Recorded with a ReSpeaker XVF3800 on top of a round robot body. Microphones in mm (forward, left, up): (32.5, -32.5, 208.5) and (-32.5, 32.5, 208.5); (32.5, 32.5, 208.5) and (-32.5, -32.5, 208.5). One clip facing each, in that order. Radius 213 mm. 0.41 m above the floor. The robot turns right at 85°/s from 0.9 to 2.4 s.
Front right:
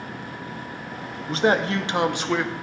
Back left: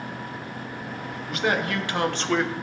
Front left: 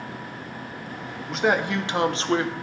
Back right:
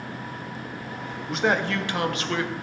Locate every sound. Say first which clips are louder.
1.3 s a man speaking: front right 5 dB, front left 1 dB; 50° right, 0.8 m; by 2.5 s 45° left, 0.8 m